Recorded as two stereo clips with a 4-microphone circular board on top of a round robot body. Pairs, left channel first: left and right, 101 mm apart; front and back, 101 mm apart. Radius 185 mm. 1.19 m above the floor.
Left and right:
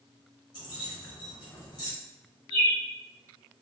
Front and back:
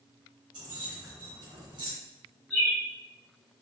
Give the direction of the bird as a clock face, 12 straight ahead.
3 o'clock.